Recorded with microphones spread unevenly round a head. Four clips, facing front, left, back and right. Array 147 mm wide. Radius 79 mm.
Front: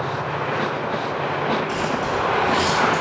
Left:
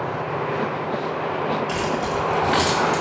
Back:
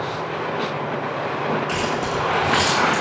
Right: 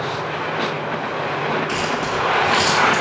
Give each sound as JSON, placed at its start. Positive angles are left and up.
{"t": 1.7, "sound": "keys jangling", "azimuth_deg": 150, "distance_m": 5.5}